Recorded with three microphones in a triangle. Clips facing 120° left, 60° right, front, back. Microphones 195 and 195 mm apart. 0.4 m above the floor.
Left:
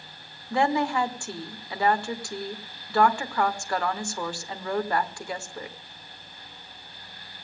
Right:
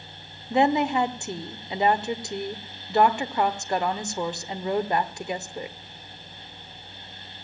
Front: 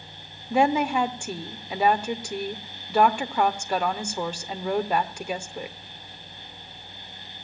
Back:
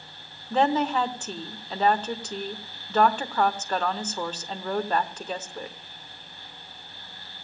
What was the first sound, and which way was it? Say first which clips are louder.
A woman speaking: right 3 dB, front 1 dB; 55° right.